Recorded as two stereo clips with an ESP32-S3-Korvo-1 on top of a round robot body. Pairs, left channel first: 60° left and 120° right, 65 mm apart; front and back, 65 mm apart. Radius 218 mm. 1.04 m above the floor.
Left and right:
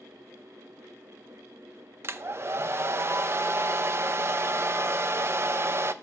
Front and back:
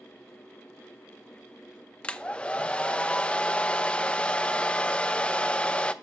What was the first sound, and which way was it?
A hair dryer, 70° right.